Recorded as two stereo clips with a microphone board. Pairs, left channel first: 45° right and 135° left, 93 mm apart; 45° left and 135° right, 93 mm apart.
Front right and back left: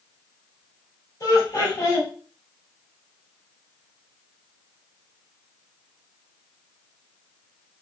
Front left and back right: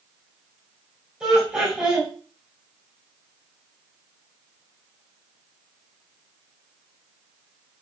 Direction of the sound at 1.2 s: 60° right.